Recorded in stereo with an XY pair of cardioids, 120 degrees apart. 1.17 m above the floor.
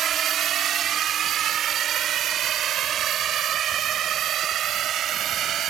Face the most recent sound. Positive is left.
turn(degrees=-55)